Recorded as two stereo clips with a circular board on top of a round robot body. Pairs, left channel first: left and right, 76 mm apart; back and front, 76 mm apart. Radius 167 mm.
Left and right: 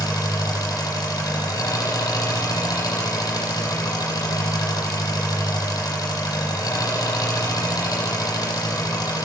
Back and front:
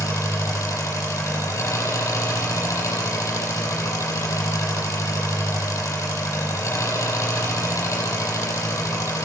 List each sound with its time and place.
0.0 s an engine running: 130° left, 7 m